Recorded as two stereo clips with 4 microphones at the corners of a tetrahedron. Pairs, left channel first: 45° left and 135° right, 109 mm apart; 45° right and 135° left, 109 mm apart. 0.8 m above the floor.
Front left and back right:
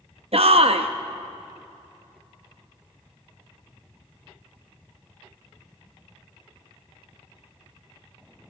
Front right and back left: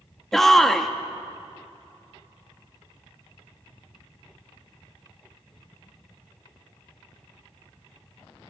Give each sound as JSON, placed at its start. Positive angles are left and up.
{"t": 0.3, "sound": "a shout", "azimuth_deg": -130, "distance_m": 0.8}